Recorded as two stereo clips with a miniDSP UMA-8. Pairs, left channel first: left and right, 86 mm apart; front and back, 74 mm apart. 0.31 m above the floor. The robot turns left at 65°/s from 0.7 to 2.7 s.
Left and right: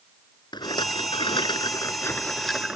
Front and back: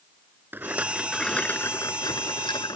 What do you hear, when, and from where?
0.5 s a rattle: 120° left; by 2.8 s 10° right